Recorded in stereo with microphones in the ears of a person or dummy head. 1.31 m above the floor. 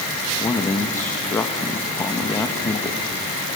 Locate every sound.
0.4 s a man speaking: 15° left (ahead or behind), 1.2 m